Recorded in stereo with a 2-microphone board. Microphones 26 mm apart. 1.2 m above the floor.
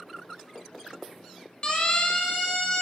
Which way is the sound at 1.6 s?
35° left (ahead or behind).